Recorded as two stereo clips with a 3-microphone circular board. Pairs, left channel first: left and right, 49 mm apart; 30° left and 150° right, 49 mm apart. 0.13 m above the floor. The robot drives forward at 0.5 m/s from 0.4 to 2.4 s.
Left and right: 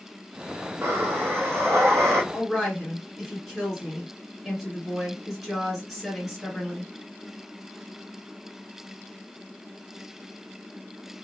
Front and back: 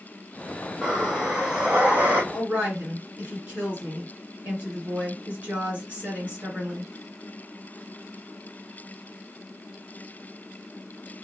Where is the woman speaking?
Straight behind, 1.7 m.